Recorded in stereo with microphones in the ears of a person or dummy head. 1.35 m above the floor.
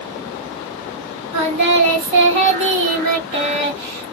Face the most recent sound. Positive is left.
turn(degrees=-35)  # may be behind; listen again after turning